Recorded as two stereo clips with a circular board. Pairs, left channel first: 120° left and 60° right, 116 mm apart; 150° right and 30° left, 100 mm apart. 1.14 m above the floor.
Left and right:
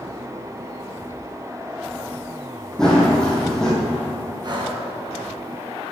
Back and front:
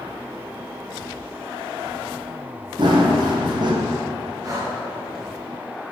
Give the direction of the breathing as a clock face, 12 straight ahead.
1 o'clock.